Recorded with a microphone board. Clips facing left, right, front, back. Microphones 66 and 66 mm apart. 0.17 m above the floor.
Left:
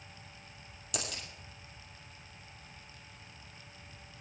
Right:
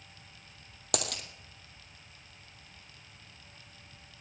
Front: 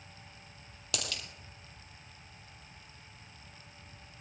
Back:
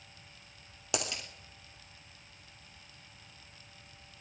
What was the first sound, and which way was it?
A dropped coin, 115° right.